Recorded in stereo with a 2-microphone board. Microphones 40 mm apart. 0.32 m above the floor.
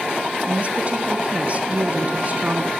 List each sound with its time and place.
0.5 s a woman speaking: 35° right (ahead or behind), 2.5 m